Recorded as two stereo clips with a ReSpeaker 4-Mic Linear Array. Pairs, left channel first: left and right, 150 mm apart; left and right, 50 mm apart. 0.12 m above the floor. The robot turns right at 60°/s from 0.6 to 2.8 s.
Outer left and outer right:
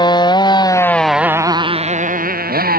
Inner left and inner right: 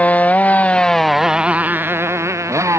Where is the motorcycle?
150° left; by 2.8 s 75° right.